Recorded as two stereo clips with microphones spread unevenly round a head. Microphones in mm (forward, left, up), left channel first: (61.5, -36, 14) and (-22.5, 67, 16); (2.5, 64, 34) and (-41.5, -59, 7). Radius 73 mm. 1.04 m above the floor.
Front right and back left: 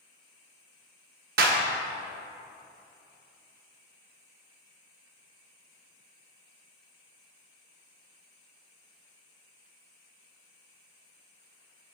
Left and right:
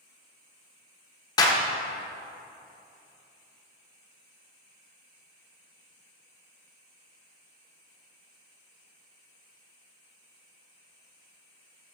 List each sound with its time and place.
1.4 s a clap: 135° left, 1.0 m